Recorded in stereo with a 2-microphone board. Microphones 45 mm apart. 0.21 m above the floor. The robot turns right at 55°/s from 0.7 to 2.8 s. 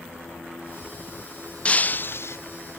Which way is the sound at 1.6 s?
25° left.